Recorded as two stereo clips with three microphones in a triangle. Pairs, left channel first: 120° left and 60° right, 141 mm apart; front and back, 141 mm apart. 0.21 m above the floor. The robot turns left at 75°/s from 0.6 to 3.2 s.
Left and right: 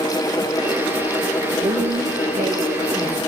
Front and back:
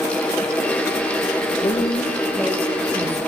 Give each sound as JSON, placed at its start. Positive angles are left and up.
{"t": 1.6, "sound": "a woman speaking", "azimuth_deg": -30, "distance_m": 5.5}